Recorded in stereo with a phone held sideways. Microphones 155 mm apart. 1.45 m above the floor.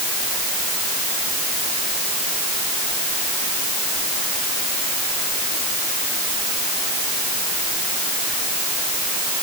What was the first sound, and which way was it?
Only background noise.